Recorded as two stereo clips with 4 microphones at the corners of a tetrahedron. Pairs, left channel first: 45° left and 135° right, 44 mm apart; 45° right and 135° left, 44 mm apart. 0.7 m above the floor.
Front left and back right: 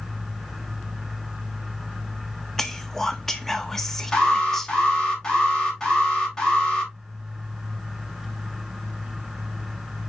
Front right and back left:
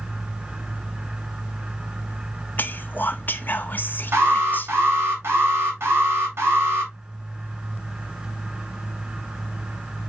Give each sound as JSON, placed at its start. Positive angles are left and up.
{"t": 2.6, "sound": "whispering", "azimuth_deg": -35, "distance_m": 1.3}
{"t": 4.1, "sound": "an alarm", "azimuth_deg": 125, "distance_m": 4.0}